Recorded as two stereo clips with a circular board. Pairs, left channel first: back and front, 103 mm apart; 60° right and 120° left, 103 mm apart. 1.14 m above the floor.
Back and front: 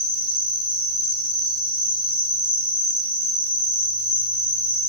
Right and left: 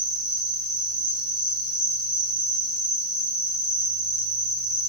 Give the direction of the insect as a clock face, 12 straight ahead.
7 o'clock.